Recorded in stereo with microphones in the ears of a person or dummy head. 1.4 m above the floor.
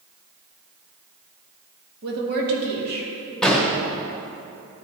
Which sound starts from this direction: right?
A woman speaking, at 2.0 s.